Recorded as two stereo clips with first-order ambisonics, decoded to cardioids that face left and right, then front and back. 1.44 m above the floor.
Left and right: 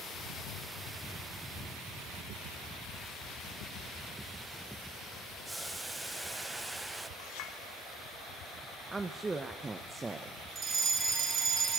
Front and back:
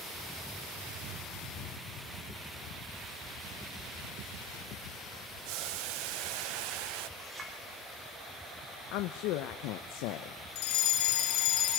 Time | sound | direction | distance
5.5 | boiling | 175° right | 0.8 m
7.2 | a clink | 110° left | 5 m
8.9 | a woman speaking | 10° right | 0.9 m
10.6 | a fire alarm | 20° right | 6 m